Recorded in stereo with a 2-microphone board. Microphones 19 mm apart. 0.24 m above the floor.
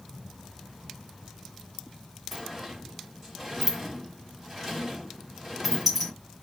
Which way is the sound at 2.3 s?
15° right (ahead or behind).